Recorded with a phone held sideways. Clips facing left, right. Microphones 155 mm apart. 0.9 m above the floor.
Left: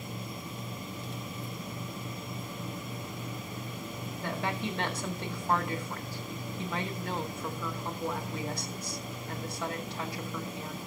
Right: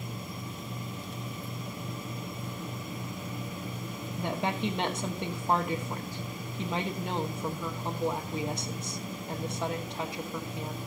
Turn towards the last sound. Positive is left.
turn(degrees=-20)  # may be behind; listen again after turning